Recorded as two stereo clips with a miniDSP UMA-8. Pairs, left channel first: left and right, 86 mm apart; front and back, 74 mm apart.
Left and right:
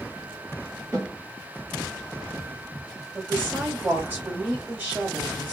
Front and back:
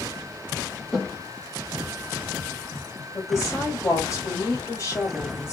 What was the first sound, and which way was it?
A snare drum, 90° right.